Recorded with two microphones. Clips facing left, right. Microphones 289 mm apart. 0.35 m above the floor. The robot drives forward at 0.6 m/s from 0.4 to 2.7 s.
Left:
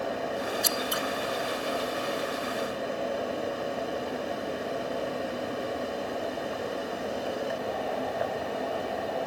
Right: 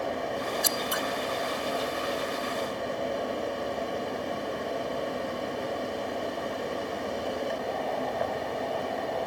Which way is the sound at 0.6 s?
65° right (ahead or behind).